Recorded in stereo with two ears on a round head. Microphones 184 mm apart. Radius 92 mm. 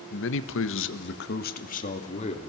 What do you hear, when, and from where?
0.1 s a man speaking: 55° left (ahead or behind), 1.6 m; by 2.5 s 30° left (ahead or behind), 3.5 m